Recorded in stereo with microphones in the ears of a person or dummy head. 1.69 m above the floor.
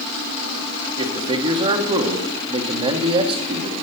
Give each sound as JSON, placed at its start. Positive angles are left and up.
{"t": 1.0, "sound": "a man speaking", "side_deg": -30, "distance_m": 1.1}